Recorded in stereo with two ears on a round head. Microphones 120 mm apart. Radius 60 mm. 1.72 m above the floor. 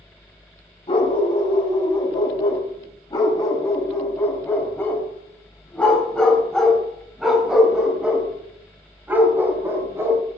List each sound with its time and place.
0.9 s a dog barking: 40° left (ahead or behind), 5 m; by 10.2 s 20° right (ahead or behind), 4.5 m